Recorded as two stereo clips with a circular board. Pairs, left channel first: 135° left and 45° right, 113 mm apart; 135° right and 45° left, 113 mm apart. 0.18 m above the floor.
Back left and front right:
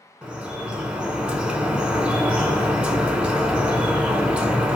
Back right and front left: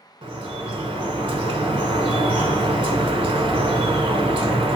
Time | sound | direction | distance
0.2 | dripping | 35° left | 0.7 m